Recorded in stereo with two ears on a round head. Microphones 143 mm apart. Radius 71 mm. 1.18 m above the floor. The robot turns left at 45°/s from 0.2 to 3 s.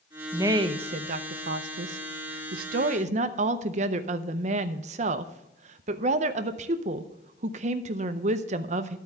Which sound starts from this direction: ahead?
A woman speaking, at 0.3 s.